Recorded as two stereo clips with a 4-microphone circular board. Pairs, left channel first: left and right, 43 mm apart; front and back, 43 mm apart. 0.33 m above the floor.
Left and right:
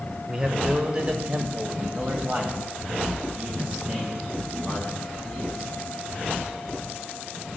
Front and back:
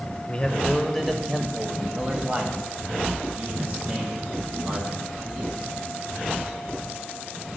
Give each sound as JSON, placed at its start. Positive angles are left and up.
{"t": 0.3, "sound": "a man speaking", "azimuth_deg": -45, "distance_m": 1.1}